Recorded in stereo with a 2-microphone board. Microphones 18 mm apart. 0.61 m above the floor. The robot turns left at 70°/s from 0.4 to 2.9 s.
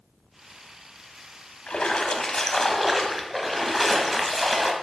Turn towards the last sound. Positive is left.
turn(degrees=-5)